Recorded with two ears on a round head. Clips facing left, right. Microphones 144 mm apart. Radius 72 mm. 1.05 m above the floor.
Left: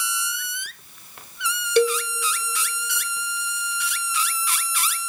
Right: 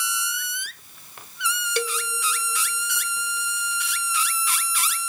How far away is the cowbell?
About 0.6 m.